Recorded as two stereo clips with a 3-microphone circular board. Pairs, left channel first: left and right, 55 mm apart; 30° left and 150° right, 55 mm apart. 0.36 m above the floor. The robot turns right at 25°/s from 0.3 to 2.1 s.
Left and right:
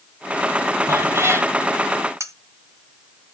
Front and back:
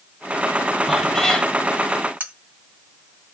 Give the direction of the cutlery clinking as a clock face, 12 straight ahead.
3 o'clock.